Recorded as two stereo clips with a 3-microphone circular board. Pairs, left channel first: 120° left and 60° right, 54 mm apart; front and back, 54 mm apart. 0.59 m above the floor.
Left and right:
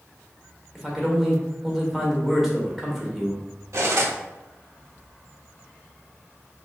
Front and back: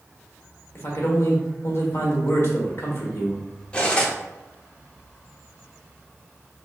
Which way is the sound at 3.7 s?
65° right.